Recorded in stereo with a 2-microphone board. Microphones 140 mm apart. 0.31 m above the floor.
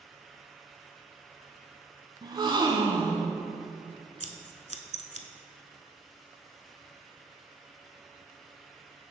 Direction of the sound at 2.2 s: 35° right (ahead or behind).